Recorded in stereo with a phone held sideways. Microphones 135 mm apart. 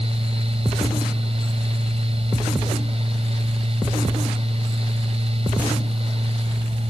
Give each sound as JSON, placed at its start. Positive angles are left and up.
{"t": 0.0, "sound": "a fan", "side_deg": -45}